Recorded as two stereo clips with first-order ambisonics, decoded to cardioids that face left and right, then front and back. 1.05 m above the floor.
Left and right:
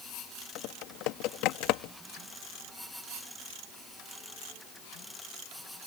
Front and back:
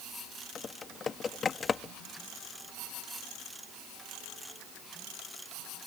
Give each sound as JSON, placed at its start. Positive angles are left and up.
{"t": 0.6, "sound": "typing on a keyboard", "azimuth_deg": 65}